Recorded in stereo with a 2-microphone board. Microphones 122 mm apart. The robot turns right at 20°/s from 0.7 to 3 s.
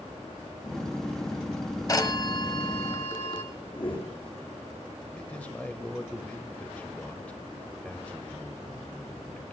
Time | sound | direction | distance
1.9 | a phone ringing | 30° left (ahead or behind) | 1.1 m
3.7 | a whoosh | 45° left (ahead or behind) | 3 m
5.1 | a man speaking | 10° left (ahead or behind) | 0.9 m